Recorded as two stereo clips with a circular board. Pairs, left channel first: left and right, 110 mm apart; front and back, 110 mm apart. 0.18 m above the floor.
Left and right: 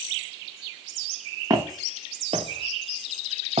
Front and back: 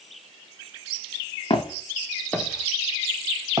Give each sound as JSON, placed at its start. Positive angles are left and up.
{"t": 1.5, "sound": "footsteps", "azimuth_deg": -35, "distance_m": 0.8}